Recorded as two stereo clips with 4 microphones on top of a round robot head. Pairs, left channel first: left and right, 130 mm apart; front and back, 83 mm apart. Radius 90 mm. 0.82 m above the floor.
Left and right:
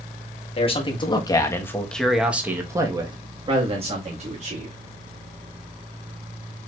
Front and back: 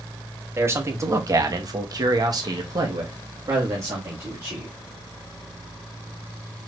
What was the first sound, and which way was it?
A man speaking, 125° left.